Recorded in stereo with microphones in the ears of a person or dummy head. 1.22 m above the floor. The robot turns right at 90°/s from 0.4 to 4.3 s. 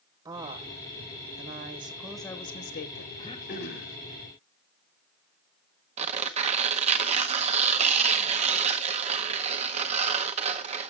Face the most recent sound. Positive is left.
turn(degrees=-40)  # may be behind; listen again after turning